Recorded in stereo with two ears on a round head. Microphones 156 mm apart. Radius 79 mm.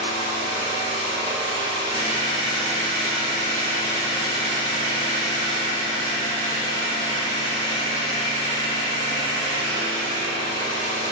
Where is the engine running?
30° left (ahead or behind), 1.5 m.